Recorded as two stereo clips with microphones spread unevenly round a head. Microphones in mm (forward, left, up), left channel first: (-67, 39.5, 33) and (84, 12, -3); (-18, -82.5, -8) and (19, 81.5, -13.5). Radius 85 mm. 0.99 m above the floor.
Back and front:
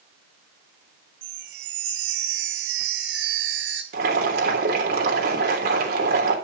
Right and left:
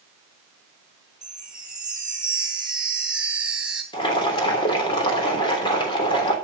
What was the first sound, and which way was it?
A chime, 10° right.